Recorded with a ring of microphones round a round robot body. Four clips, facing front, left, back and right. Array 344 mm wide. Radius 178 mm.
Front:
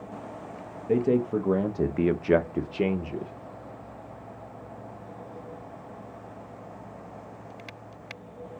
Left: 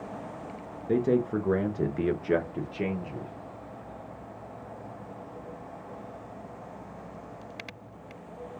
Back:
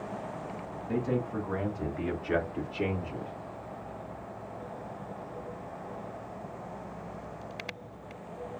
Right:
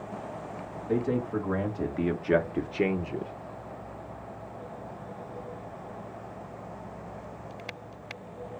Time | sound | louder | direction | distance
0.9 | a man speaking | left 3 dB, front 8 dB | 35° left | 1.2 m